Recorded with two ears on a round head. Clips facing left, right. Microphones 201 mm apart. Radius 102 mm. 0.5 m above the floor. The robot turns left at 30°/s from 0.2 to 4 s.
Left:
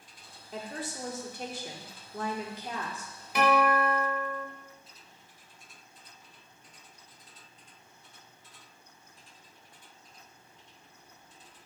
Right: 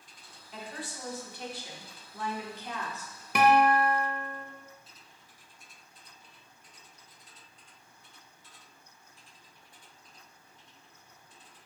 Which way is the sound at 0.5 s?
120° left.